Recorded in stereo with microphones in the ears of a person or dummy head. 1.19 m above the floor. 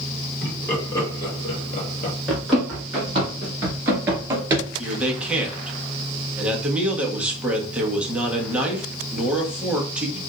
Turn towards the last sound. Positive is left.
turn(degrees=-10)  # may be behind; listen again after turning